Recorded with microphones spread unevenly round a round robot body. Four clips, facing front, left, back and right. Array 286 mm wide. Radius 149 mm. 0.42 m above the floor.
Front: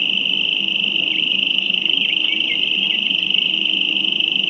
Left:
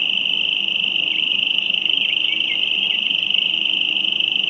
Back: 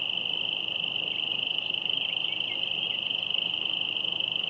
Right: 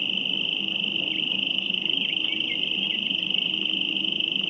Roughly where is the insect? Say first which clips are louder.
Left 4 dB, front 11 dB; ahead right.